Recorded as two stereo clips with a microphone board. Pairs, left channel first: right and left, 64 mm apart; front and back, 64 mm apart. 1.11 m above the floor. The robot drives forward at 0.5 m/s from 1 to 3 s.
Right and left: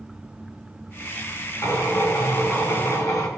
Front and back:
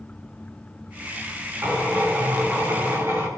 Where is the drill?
125° right, 4.5 m; by 3.3 s 130° right, 5 m.